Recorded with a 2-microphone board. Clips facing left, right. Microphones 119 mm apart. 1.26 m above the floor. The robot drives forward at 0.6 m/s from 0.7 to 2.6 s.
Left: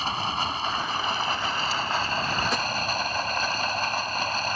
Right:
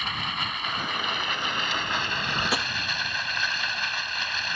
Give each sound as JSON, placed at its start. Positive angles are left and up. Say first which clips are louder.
{"t": 0.0, "sound": "running water", "louder": "left 5 dB", "side_deg": 30}
{"t": 2.5, "sound": "tapping", "louder": "left 1 dB", "side_deg": -10}